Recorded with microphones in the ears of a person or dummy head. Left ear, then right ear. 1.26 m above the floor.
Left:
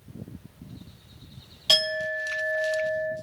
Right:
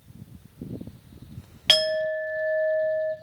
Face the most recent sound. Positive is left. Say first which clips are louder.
# right 2 dB
turn(degrees=-35)  # may be behind; listen again after turning